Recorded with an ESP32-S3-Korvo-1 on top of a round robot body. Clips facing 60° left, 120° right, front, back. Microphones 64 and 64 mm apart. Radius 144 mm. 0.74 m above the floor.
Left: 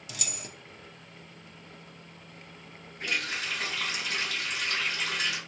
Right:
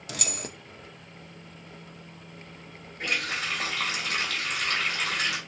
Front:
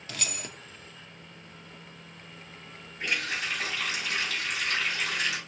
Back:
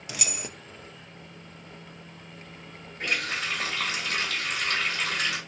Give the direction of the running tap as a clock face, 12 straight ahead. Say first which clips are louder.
Right 2 dB, back 2 dB; 5 o'clock.